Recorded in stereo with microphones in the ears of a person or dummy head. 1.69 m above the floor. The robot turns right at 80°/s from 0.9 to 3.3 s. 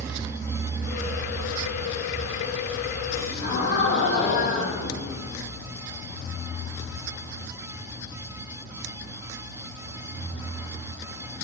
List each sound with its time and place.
3.1 s a gasp: 60° left (ahead or behind), 0.7 m; by 5.5 s 50° left (ahead or behind), 0.7 m